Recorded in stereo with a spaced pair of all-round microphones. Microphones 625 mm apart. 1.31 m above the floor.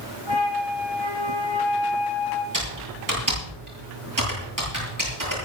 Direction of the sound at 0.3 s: 45° right (ahead or behind).